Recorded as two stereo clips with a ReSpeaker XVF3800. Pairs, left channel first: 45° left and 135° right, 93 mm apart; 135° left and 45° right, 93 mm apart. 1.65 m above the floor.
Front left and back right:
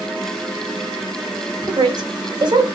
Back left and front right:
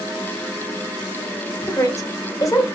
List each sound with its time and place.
1.6 s a woman speaking: 175° right, 1.2 m